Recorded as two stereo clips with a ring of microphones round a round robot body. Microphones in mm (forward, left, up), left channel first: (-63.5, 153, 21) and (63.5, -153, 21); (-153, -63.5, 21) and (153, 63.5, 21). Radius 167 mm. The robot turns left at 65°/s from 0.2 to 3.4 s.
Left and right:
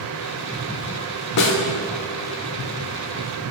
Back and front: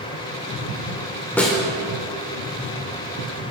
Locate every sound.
1.4 s a snare drum: 120° left, 1.1 m; by 1.6 s 105° left, 1.1 m